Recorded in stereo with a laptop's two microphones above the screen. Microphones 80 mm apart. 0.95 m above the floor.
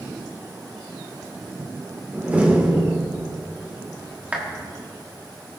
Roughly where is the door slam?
Centre.